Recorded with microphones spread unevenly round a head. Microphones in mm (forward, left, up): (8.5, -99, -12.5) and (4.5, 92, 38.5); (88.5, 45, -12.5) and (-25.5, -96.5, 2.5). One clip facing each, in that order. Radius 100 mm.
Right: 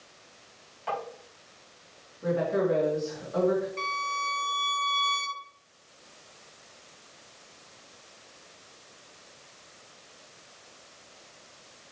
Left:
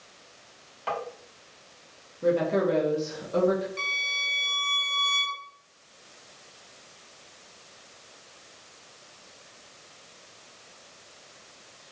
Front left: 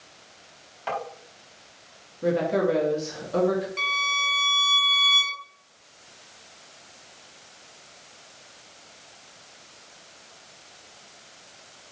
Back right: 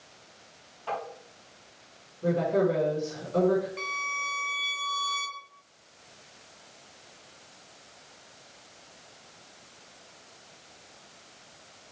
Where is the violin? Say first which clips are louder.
Right 5 dB, front left 4 dB; 20° left, 3 m.